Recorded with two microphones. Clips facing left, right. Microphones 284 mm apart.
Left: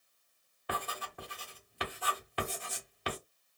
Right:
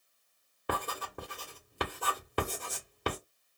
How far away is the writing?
About 1.1 m.